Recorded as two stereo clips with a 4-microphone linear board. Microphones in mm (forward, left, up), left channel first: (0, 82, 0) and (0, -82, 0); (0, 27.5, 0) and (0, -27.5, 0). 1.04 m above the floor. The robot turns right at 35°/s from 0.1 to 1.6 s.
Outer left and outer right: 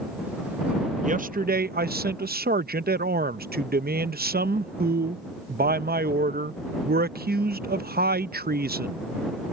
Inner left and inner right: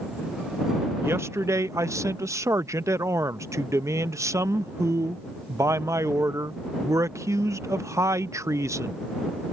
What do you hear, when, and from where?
1.0 s a man speaking: 50° right (ahead or behind); by 9.0 s 70° right (ahead or behind)